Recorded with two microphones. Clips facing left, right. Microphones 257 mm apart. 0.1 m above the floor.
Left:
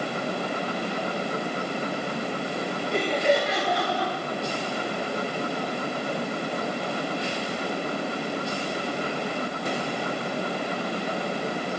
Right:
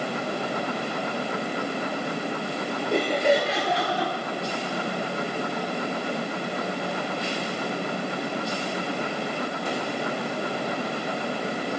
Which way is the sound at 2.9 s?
50° right (ahead or behind).